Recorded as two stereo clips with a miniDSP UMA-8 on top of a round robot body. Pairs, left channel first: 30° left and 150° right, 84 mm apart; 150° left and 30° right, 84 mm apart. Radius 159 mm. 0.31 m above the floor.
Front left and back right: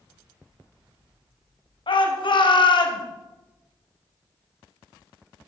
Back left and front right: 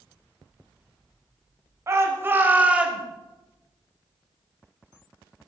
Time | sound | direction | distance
1.9 | a shout | 25° left | 2.5 m